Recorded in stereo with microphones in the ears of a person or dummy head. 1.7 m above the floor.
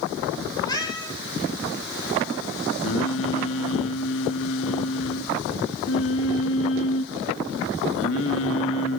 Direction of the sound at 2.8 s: 65° left (ahead or behind).